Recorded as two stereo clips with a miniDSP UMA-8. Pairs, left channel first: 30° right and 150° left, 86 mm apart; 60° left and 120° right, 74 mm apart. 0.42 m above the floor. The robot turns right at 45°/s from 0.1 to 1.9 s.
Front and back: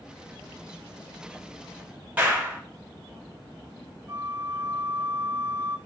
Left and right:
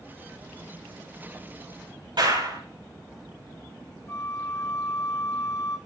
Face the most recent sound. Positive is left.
turn(degrees=105)